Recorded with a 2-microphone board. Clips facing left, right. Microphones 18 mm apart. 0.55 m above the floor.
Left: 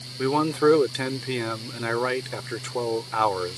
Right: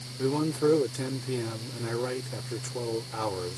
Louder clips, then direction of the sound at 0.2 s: Left 5 dB; 50° left (ahead or behind).